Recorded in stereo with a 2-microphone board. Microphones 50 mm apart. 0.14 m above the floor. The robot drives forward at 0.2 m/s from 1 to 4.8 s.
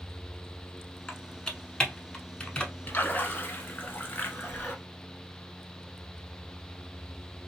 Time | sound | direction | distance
1.1 | typing on a keyboard | 15° left (ahead or behind) | 0.9 m
2.9 | a splash | 35° left (ahead or behind) | 1.0 m